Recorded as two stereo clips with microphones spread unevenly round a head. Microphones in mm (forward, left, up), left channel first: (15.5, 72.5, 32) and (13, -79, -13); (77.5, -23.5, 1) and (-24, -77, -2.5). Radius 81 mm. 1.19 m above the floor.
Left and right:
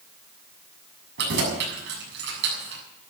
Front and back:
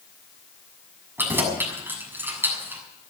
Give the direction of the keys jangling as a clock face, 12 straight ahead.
3 o'clock.